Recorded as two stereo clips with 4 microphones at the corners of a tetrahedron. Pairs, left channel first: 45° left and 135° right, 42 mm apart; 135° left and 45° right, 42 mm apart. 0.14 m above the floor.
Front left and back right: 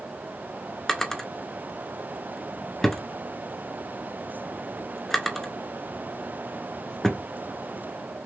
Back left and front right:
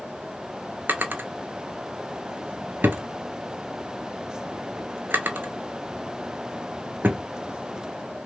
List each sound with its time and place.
0.9 s a drawer: 35° right, 0.6 m